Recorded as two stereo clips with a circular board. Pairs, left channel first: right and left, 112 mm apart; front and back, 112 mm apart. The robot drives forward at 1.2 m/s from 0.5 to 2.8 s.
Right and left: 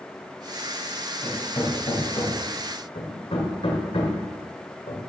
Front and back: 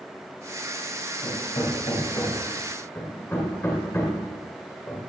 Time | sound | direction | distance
1.2 | hammering | 30° right | 3 m